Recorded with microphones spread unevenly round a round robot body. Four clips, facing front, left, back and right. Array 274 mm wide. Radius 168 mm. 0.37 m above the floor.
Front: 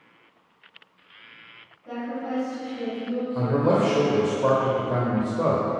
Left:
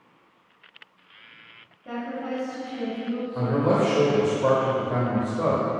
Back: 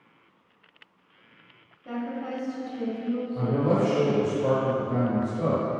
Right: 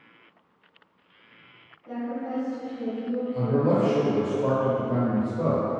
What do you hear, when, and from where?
1.9 s a woman speaking: 135° left, 2 m
3.4 s a man speaking: 20° left, 0.9 m